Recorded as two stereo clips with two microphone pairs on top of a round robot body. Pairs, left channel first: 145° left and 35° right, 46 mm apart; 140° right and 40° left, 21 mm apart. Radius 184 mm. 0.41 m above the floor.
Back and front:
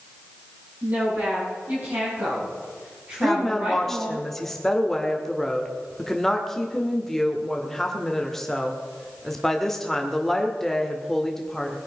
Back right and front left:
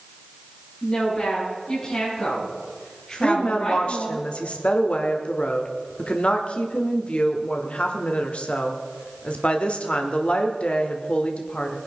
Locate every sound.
0.8 s a woman speaking: 75° right, 7.5 m; by 4.2 s 85° right, 4.5 m
3.2 s a woman speaking: 130° right, 1.8 m